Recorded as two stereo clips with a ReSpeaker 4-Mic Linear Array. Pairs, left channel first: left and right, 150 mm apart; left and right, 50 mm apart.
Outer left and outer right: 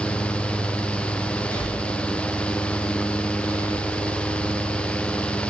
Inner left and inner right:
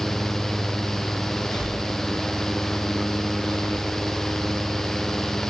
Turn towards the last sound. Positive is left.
turn(degrees=15)  # may be behind; listen again after turning